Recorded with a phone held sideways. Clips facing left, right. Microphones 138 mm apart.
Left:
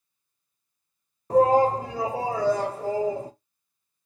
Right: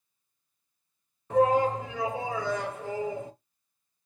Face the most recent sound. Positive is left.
turn(degrees=35)  # may be behind; listen again after turning